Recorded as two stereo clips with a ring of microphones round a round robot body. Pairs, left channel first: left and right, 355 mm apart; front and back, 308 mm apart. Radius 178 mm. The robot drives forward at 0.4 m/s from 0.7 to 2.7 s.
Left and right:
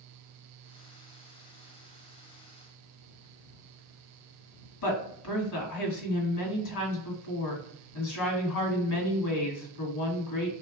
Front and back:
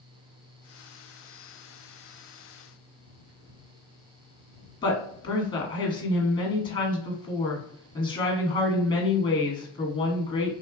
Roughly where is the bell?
No bell in this recording.